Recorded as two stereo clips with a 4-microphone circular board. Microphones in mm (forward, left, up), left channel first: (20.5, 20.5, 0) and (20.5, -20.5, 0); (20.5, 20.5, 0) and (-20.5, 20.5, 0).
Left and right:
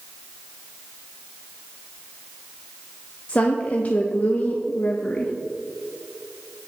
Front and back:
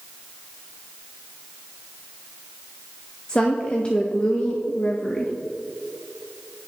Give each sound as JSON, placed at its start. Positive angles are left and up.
{"t": 3.3, "sound": "a woman speaking", "azimuth_deg": 55, "distance_m": 0.6}